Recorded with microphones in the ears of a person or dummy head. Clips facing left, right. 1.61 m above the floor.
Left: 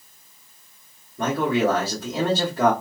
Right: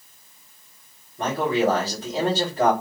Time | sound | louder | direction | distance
1.2 | a man speaking | left 1 dB | 60° left (ahead or behind) | 1.6 m